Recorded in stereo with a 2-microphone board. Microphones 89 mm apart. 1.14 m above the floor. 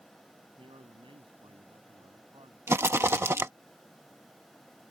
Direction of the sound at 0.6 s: 80° right.